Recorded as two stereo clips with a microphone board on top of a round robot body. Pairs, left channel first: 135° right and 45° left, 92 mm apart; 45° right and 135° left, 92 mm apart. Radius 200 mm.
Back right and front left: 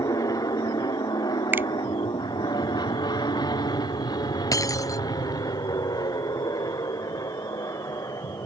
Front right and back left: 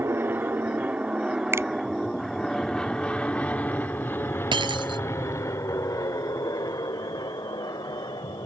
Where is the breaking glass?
170° left.